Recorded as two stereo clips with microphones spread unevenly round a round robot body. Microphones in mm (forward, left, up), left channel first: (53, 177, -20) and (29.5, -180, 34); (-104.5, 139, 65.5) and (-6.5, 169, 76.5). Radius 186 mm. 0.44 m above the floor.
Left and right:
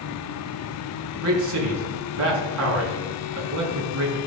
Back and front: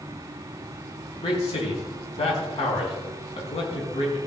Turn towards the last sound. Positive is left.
turn(degrees=-145)